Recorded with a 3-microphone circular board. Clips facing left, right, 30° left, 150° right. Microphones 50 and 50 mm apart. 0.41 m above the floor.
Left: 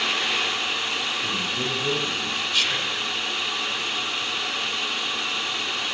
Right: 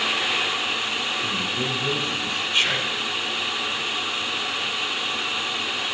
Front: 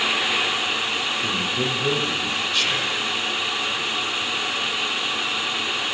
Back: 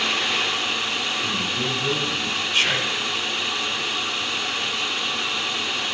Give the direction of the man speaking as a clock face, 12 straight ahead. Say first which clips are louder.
Right 1 dB, front 1 dB; 12 o'clock.